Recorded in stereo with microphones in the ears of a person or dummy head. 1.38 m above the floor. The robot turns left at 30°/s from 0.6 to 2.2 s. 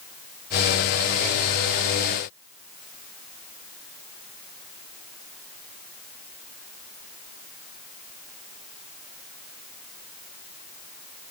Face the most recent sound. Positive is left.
No sound to turn to.